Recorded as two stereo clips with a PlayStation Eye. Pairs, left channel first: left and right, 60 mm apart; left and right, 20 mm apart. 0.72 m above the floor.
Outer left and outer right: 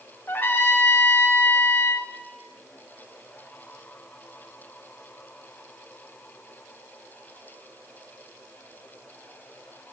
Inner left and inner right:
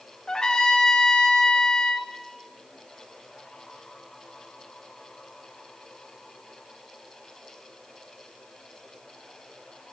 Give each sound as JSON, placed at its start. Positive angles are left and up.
{"t": 0.3, "sound": "a trumpet", "side_deg": 40, "distance_m": 0.6}